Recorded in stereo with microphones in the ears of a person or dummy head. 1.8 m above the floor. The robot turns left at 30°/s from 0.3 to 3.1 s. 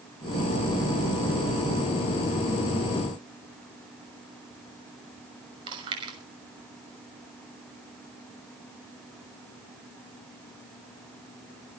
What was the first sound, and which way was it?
Chewing, 30° right (ahead or behind).